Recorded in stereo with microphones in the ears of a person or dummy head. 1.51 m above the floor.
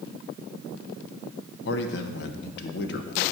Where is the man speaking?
70° left (ahead or behind), 1.2 m.